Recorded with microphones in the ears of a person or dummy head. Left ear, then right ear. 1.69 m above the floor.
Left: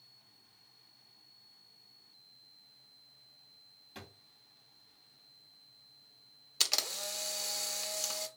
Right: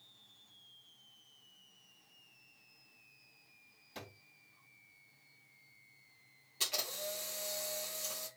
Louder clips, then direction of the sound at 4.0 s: Right 1 dB; 5° left (ahead or behind).